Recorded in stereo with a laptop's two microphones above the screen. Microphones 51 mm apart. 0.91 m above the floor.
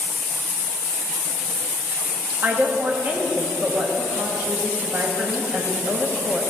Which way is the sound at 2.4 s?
35° right (ahead or behind).